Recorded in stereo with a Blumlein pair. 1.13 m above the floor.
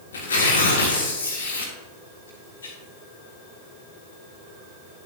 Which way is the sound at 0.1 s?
70° left.